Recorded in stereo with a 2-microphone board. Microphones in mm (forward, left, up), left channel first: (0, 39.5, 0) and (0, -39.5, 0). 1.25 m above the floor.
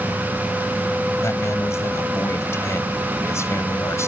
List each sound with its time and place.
1.2 s a man speaking: 35° left (ahead or behind)